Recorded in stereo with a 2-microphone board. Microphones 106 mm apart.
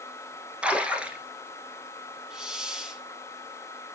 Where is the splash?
10° right (ahead or behind), 1.2 m.